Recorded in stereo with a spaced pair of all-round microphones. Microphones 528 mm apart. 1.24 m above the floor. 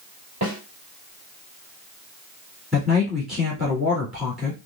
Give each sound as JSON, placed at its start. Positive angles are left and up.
{"t": 0.4, "sound": "a snare drum", "side_deg": -40, "distance_m": 2.5}
{"t": 2.7, "sound": "a man speaking", "side_deg": -15, "distance_m": 2.0}